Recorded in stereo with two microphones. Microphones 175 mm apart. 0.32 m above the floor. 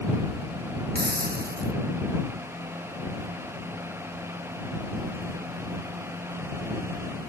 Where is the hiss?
65° right (ahead or behind).